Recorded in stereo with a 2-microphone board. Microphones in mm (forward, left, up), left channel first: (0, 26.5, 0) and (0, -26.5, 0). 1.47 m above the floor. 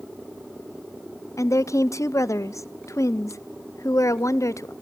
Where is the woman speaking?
80° left, 0.6 m.